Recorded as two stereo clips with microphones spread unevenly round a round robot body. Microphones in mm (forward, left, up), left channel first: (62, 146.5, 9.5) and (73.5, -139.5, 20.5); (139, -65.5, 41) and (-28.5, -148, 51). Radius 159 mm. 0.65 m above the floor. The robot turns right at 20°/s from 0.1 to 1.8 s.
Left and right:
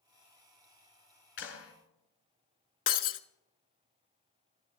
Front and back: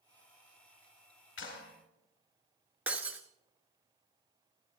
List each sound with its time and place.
1.4 s a clap: 45° left, 4.5 m; by 1.7 s 50° left, 4.5 m
2.9 s breaking glass: 135° left, 0.6 m